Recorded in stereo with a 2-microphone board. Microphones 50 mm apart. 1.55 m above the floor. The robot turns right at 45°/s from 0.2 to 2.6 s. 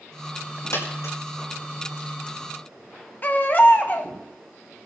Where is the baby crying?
40° left (ahead or behind), 1.0 m.